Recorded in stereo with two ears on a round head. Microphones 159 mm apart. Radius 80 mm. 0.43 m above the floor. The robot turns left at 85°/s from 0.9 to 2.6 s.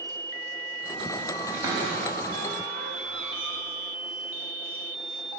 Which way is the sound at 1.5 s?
10° right (ahead or behind).